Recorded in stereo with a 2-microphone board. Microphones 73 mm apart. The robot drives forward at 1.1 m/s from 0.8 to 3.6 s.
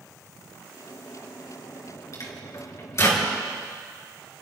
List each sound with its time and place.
2.1 s a microwave: 50° left (ahead or behind), 4.5 m; by 3.3 s 40° left (ahead or behind), 5 m